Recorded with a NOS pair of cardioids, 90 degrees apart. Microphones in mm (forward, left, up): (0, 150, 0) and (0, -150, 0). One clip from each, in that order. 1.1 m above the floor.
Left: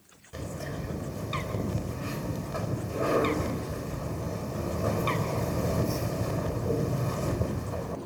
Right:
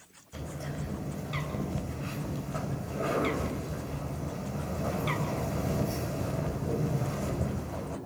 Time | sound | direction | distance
0.3 | a bird | 25° left | 4 m